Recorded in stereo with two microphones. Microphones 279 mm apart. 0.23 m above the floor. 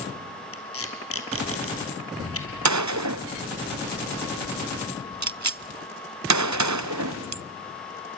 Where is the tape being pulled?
55° left (ahead or behind), 3.5 m.